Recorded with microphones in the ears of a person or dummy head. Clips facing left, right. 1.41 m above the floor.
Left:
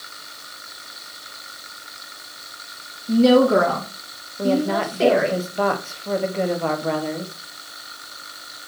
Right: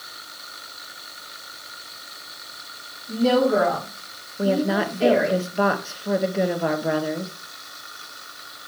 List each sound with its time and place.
3.1 s a woman speaking: 75° left (ahead or behind), 1.8 m
4.4 s a woman speaking: 10° right (ahead or behind), 0.9 m